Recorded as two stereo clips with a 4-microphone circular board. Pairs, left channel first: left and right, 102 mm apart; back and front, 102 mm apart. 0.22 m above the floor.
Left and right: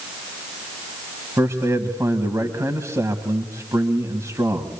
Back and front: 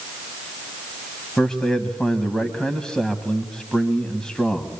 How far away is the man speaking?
About 1.6 m.